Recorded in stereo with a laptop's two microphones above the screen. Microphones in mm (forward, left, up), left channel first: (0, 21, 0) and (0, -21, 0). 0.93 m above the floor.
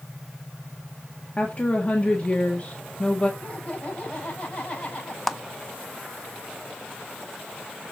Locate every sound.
1.4 s a woman speaking: 35° left (ahead or behind), 1.6 m
3.4 s laughter: 35° left (ahead or behind), 6.5 m
5.3 s a clap: 5° left (ahead or behind), 0.7 m